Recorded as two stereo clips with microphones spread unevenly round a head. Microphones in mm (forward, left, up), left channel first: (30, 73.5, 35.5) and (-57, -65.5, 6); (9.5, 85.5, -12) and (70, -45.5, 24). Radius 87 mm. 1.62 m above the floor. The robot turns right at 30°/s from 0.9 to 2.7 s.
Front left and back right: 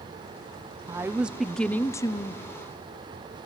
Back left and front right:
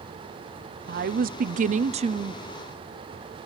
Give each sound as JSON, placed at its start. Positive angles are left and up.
{"t": 0.9, "sound": "a woman speaking", "azimuth_deg": -50, "distance_m": 0.6}